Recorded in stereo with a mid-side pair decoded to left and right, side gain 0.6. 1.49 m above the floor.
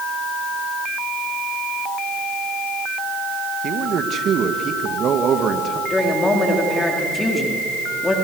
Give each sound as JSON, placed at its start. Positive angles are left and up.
{"t": 3.6, "sound": "a man speaking", "azimuth_deg": -45, "distance_m": 2.0}
{"t": 5.9, "sound": "a woman speaking", "azimuth_deg": 25, "distance_m": 3.5}